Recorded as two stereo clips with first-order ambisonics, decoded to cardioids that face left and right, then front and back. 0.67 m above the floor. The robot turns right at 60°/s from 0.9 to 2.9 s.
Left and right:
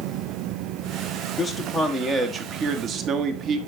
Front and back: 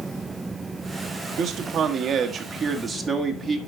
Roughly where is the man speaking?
Behind.